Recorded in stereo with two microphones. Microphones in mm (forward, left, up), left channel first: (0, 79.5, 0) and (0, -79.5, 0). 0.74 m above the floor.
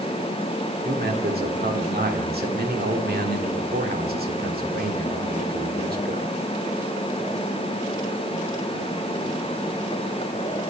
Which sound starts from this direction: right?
A man speaking, at 0.8 s.